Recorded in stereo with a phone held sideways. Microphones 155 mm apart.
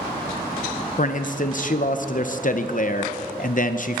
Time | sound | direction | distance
1.0 | a man speaking | 55° left (ahead or behind) | 0.6 m